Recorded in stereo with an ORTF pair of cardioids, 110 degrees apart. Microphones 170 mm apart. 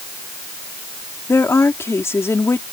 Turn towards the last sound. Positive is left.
turn(degrees=15)